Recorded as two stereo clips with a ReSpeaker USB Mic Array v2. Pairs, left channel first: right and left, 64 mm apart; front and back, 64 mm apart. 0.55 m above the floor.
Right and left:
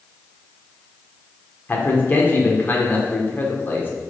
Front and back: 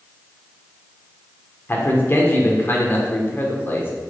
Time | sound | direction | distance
1.7 | a man speaking | 45° right | 1.3 m